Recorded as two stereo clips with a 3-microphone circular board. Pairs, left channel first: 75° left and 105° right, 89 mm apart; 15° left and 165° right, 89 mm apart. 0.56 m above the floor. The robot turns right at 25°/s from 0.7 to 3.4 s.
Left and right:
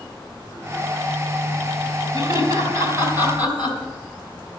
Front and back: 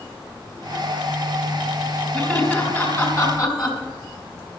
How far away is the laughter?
About 4 m.